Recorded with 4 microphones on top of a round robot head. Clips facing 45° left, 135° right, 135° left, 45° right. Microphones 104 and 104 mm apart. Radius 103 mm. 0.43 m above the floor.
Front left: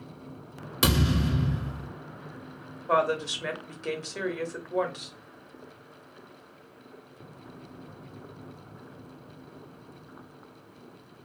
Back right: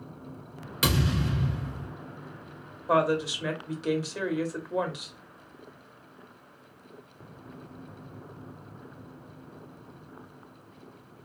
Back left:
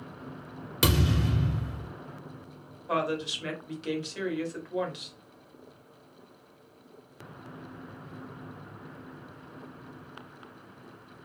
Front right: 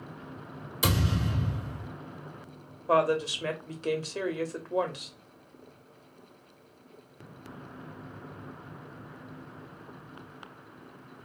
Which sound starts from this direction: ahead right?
A woman speaking, at 2.9 s.